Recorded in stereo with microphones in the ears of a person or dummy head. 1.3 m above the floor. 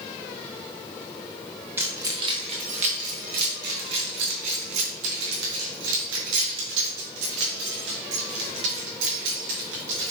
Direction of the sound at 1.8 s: 15° right (ahead or behind).